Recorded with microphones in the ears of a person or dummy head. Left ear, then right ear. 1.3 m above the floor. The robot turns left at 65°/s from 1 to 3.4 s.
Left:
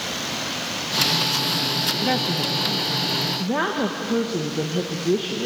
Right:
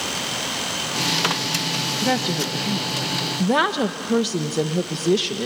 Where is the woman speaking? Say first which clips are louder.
Even; 5° left, 0.8 m; by 5.5 s 90° right, 0.8 m.